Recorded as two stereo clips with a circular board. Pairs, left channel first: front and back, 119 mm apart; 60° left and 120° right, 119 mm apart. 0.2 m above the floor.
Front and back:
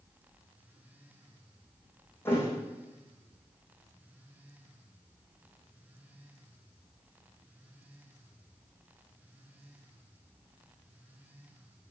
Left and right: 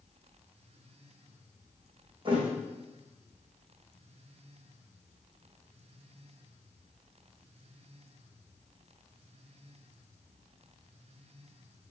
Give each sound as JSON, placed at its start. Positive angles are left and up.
{"t": 2.2, "sound": "a thud", "azimuth_deg": -70, "distance_m": 3.5}